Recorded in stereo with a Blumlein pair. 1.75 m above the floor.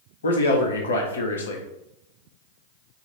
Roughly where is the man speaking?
Ahead left.